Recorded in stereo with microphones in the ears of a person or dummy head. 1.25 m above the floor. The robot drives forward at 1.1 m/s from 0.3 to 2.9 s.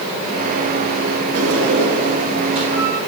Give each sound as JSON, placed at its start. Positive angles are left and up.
{"t": 1.3, "sound": "a sliding door", "side_deg": -55, "distance_m": 2.5}